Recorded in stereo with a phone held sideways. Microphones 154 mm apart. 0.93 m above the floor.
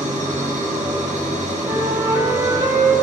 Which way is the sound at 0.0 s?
55° right (ahead or behind).